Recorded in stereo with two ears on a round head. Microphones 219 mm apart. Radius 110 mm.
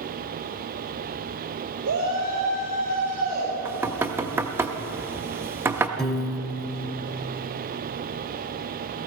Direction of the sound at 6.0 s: Centre (ahead or behind).